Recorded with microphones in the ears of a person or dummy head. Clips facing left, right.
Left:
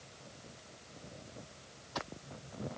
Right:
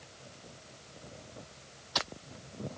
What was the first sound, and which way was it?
Only background noise.